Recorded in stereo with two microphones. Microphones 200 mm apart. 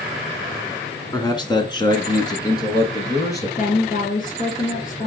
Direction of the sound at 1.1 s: 20° left (ahead or behind).